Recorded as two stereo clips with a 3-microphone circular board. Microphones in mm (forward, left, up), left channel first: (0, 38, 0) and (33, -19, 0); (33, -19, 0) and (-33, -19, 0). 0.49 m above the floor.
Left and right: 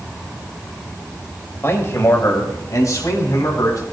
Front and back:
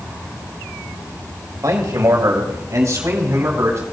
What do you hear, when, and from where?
1.6 s a man speaking: 165° left, 2 m; by 3.8 s 140° left, 4.5 m